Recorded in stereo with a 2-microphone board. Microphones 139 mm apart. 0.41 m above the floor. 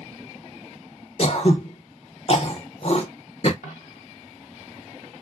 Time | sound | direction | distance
1.2 | throat clearing | 50° left (ahead or behind) | 0.5 m
3.6 | a dropped coin | 65° left (ahead or behind) | 1.4 m